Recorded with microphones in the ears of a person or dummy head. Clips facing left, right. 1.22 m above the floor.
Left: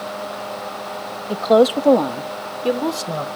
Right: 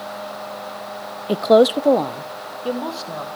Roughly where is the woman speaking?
Right.